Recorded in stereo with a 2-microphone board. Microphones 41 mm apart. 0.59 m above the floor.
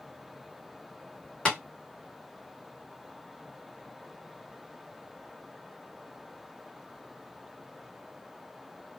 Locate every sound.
1.4 s tapping: 15° left (ahead or behind), 2 m